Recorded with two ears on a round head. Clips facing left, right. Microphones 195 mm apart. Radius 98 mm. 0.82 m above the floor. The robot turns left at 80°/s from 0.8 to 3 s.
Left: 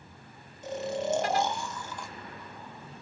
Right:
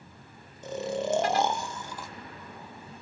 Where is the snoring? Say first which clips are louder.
Right 1 dB; 80° right, 0.8 m; by 2.1 s straight behind, 0.8 m.